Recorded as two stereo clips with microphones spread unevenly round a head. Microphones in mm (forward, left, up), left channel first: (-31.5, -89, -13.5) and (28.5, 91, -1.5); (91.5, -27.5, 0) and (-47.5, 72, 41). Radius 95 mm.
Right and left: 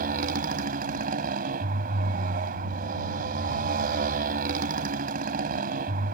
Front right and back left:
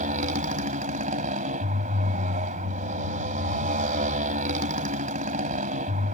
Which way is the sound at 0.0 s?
110° left.